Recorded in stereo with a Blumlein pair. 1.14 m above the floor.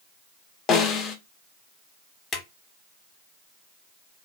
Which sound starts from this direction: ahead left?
A snare drum, at 0.7 s.